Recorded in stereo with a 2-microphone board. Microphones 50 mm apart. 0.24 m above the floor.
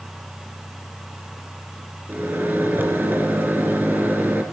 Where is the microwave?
40° right (ahead or behind), 2.5 m.